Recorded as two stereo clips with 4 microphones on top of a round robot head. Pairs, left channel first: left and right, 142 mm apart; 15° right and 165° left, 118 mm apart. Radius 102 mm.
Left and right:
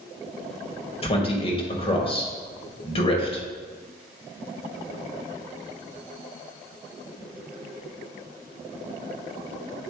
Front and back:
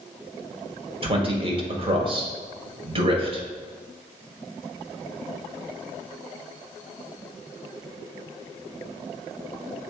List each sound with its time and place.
1.0 s a man speaking: 135° left, 1.9 m